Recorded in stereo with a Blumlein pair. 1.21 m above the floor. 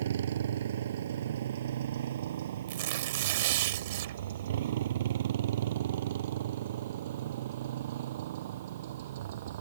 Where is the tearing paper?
50° right.